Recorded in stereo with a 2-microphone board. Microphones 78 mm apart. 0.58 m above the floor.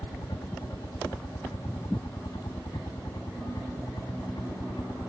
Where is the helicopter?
65° left (ahead or behind); by 5.1 s 70° left (ahead or behind).